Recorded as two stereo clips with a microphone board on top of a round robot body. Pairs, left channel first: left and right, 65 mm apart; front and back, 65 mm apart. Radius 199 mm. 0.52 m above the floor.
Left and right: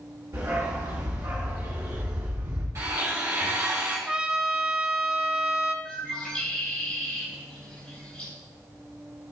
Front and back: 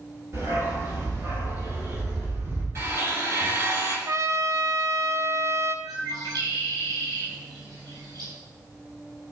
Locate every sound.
0.3 s a dog barking: 135° right, 5.5 m; by 2.6 s 125° right, 4 m
2.8 s a blender: 135° right, 6 m
4.1 s a trumpet: 165° right, 1.1 m
5.8 s a bird: 165° left, 3.5 m